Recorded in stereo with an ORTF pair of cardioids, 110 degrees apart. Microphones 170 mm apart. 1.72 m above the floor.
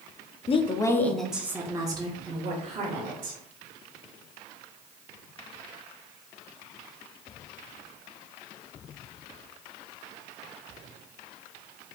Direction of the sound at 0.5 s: 35° left.